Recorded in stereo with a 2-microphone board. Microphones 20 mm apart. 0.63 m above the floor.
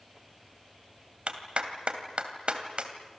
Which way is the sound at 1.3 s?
60° right (ahead or behind).